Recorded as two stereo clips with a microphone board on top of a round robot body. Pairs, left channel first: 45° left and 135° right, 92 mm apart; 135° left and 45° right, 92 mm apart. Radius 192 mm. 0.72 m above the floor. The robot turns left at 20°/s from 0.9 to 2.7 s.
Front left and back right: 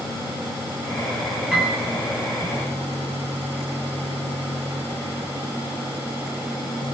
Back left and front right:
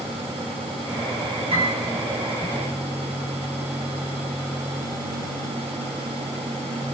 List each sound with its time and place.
1.5 s a piano: 50° right, 3.5 m; by 1.8 s 55° right, 3.5 m